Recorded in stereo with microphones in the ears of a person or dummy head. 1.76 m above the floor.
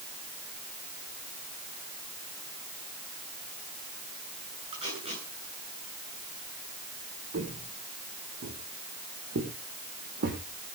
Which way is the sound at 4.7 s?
35° right (ahead or behind).